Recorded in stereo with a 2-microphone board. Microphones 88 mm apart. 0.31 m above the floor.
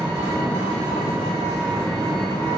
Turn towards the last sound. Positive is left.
turn(degrees=-25)  # may be behind; listen again after turning